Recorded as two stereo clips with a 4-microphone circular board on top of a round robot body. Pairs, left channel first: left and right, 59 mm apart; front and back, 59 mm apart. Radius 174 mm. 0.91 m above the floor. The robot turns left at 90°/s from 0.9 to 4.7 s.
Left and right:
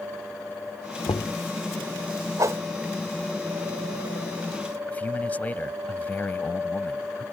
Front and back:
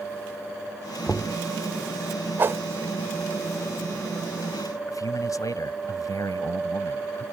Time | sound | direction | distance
1.1 | knocking | 75° left | ?
2.4 | a whoosh | 120° right | ?
4.9 | a man speaking | 25° left | ?